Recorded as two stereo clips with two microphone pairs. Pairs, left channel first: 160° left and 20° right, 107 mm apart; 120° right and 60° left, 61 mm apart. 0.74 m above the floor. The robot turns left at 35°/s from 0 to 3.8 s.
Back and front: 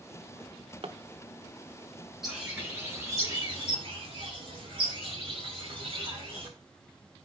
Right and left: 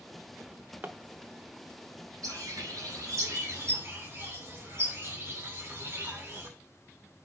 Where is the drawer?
20° left, 0.6 m; by 1.0 s straight ahead, 0.6 m.